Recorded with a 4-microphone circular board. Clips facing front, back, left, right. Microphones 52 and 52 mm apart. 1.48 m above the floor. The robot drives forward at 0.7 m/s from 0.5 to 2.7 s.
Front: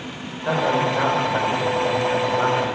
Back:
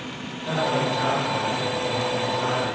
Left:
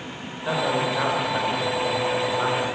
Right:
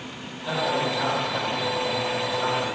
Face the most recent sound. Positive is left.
turn(degrees=45)